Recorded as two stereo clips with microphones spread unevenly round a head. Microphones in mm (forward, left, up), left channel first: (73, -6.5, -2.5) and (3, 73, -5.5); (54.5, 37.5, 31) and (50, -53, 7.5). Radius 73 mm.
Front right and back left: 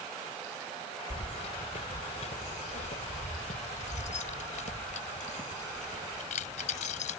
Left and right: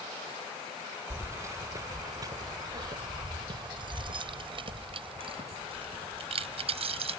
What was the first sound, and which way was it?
Keys jangling, 30° right.